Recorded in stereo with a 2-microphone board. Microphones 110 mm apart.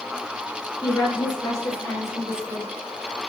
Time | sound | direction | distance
0.8 | a woman speaking | 40° left (ahead or behind) | 4 m